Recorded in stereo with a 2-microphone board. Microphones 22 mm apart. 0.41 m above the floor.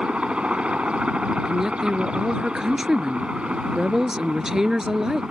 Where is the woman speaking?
25° right (ahead or behind).